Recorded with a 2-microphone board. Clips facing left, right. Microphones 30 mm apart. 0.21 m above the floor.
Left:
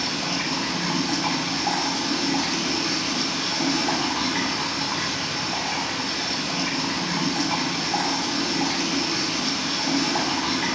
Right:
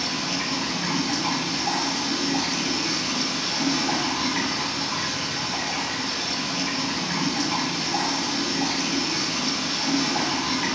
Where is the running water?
80° left, 4 m.